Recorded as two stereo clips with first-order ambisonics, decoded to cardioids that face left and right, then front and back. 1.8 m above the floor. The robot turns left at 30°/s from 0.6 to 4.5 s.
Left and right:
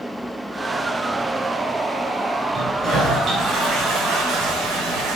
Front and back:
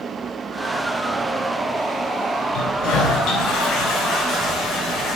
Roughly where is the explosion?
No explosion in this recording.